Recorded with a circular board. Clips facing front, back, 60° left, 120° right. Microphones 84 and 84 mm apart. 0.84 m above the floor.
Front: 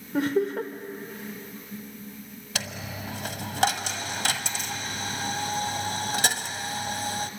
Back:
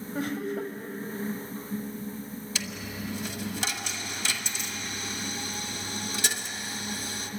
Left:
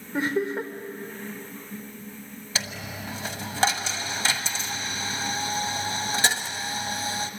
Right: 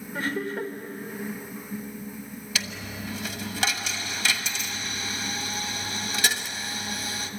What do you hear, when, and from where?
0.1 s laughter: 5° right, 2.5 m
2.5 s a dropped coin: 5° left, 1.2 m